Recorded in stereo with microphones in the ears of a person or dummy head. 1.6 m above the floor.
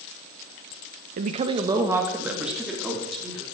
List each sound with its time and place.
1.2 s a woman speaking: 45° right (ahead or behind), 0.9 m; by 3.4 s centre (ahead or behind), 4 m